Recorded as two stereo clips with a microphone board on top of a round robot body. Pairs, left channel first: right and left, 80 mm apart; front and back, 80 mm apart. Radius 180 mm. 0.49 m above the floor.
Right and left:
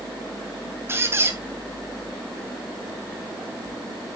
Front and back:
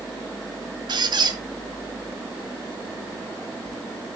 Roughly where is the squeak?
Behind left.